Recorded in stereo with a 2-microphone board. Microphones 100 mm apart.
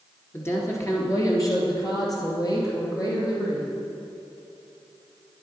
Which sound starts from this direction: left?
A woman speaking, at 0.3 s.